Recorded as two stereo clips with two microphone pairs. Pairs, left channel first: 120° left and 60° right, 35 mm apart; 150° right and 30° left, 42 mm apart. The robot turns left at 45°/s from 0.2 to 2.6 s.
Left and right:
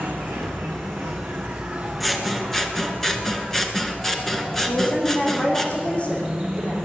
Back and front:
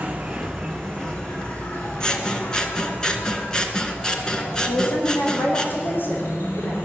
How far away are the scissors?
About 1.5 m.